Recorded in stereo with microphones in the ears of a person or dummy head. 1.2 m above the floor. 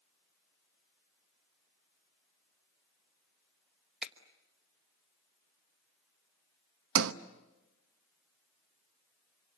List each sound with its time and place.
4.0 s a finger snap: centre (ahead or behind), 1.2 m
7.0 s a sliding door: 65° right (ahead or behind), 0.8 m